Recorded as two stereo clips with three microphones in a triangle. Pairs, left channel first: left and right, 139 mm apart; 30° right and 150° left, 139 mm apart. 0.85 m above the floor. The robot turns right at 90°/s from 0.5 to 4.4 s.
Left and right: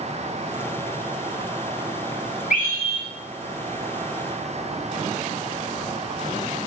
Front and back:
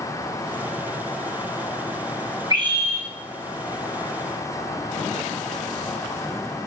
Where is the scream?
90° left, 3.5 m; by 3.1 s 145° left, 3.5 m.